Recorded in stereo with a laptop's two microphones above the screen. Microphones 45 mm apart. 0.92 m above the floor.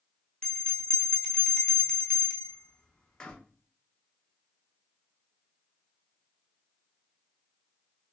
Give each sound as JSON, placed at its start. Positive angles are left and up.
{"t": 0.4, "sound": "a bell", "side_deg": 20, "distance_m": 0.6}